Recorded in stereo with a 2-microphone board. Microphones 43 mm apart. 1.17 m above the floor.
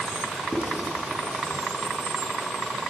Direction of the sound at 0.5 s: 65° left (ahead or behind).